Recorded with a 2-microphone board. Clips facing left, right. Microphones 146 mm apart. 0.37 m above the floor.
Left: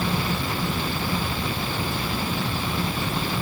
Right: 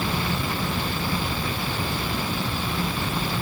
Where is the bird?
I don't hear a bird.